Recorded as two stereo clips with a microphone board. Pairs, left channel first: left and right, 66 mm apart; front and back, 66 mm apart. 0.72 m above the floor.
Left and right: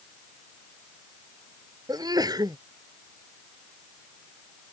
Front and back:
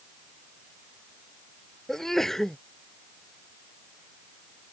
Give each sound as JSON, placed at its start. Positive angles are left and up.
{"t": 1.9, "sound": "a sneeze", "azimuth_deg": -85}